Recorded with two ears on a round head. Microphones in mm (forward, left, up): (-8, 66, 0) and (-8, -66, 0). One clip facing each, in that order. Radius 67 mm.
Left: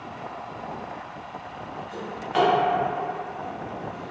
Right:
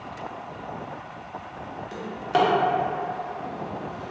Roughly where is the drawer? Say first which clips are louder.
Right 1 dB; right.